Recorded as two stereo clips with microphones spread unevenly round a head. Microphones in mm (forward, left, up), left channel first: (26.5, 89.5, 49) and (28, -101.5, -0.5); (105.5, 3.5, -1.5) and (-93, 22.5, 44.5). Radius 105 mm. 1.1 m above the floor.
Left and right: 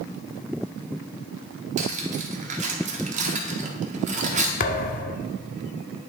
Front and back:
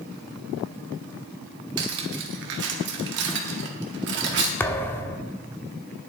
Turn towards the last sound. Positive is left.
turn(degrees=85)